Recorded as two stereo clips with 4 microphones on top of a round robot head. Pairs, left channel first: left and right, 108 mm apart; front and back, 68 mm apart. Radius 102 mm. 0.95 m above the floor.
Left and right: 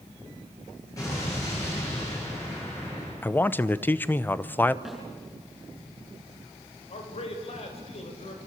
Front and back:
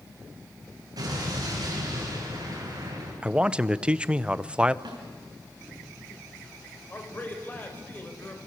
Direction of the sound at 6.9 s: 65° left.